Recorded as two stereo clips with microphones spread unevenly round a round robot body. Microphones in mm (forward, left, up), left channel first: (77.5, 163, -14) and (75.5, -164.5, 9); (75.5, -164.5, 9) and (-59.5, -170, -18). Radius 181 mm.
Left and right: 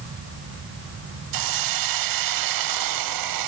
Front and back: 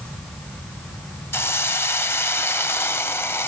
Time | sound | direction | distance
1.3 | a hiss | 75° right | 1.0 m